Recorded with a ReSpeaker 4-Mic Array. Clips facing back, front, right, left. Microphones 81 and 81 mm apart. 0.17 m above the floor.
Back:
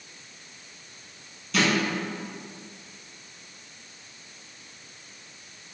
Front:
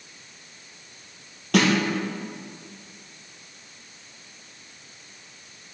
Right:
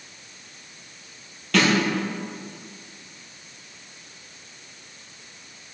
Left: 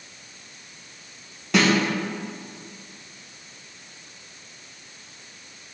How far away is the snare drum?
About 2.5 m.